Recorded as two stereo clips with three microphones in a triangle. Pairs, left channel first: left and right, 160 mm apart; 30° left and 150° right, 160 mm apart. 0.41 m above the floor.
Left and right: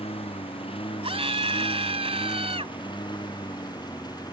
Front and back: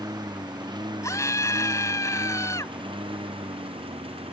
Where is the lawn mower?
145° left; by 4.3 s 155° left.